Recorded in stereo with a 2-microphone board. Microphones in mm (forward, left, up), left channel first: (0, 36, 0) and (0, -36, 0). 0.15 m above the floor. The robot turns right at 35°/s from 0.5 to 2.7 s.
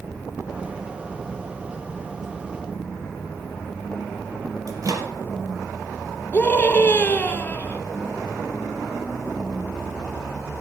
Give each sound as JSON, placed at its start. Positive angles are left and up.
{"t": 4.7, "sound": "a microwave", "side_deg": -50, "distance_m": 3.5}
{"t": 6.3, "sound": "a scream", "side_deg": 25, "distance_m": 2.5}